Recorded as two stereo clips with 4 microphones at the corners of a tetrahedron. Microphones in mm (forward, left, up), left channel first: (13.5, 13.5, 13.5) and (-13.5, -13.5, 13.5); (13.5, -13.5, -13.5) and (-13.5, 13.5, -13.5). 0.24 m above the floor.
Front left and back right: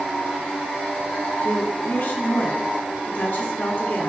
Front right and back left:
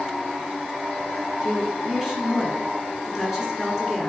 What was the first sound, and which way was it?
A woman speaking, 50° left.